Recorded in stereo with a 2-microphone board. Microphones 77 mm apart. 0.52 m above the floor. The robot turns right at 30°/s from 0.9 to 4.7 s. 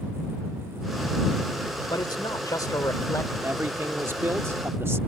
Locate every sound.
1.9 s a man speaking: 95° left; by 3.3 s 140° left
3.4 s a man speaking: 115° right; by 5.0 s 75° right